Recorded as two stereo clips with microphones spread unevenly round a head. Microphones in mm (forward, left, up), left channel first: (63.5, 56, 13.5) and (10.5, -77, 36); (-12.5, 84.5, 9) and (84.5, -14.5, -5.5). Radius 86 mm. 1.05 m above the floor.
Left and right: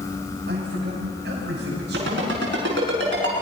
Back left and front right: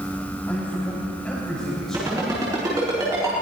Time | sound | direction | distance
0.5 | a man speaking | 145° right | 7 m
1.9 | a ringtone | 120° right | 7 m